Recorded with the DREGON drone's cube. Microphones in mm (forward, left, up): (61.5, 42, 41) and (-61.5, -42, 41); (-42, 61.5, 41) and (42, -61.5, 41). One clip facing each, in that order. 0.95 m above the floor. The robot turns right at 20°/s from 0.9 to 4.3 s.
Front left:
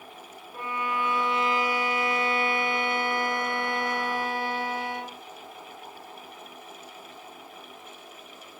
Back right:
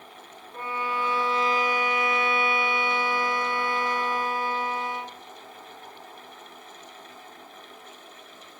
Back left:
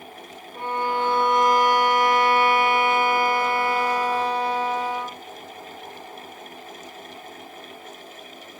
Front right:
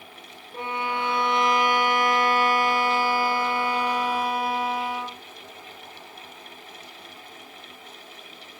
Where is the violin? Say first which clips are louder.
Even, back left 4 dB; 40° right, 0.8 m; by 5.2 s 25° left, 0.8 m.